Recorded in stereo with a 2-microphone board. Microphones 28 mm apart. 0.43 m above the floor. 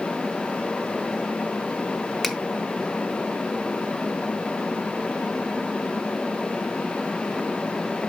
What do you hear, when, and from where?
2.2 s a finger snap: 10° left (ahead or behind), 1.0 m